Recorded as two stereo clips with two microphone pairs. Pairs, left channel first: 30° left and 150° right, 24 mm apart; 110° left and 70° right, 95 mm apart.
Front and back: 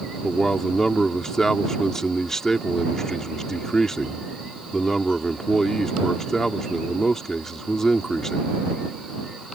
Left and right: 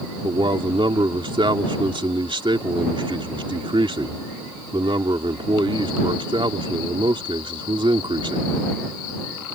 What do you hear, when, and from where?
0.2 s a man speaking: 40° right